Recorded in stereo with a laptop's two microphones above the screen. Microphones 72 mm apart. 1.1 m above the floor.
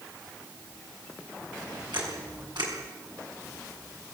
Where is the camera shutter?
85° right, 6.5 m.